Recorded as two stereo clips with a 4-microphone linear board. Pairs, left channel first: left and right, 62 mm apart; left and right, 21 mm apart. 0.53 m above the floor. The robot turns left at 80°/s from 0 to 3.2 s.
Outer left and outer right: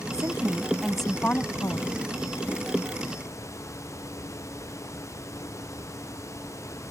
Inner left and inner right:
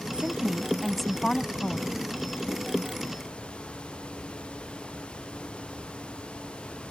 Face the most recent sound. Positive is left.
turn(degrees=0)